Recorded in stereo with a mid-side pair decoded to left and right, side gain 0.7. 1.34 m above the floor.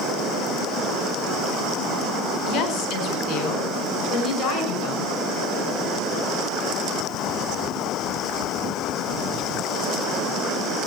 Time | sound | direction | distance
2.5 | a woman speaking | 45° left | 4.5 m